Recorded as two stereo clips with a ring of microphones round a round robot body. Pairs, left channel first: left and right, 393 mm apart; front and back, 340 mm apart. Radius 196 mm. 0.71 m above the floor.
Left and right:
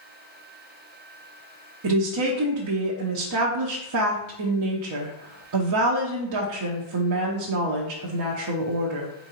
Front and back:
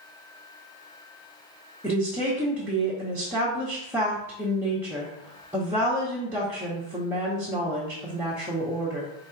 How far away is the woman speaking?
About 0.8 m.